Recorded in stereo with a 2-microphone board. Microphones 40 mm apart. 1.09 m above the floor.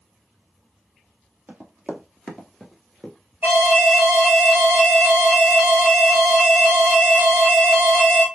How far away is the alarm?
About 2.5 m.